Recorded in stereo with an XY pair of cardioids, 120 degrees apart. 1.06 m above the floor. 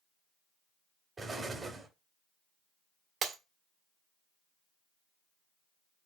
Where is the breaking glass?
50° right, 1.4 m.